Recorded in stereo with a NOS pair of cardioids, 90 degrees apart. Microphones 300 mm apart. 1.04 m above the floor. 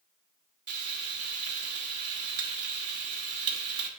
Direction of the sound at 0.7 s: 55° right.